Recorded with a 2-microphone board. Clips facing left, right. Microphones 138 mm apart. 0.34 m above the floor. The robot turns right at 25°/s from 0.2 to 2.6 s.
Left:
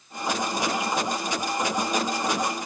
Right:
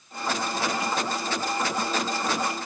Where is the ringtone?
I don't hear a ringtone.